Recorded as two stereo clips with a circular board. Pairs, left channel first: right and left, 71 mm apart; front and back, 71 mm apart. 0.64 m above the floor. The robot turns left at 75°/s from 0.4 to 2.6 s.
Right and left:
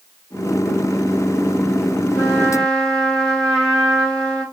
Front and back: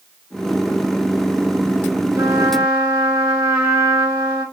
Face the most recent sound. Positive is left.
turn(degrees=-170)